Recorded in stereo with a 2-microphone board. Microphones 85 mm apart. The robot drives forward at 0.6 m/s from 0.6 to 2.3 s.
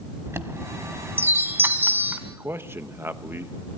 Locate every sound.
0.3 s a chime: 30° right (ahead or behind), 1.2 m; by 2.2 s 20° right (ahead or behind), 1.7 m
2.3 s a man speaking: 30° right (ahead or behind), 1.0 m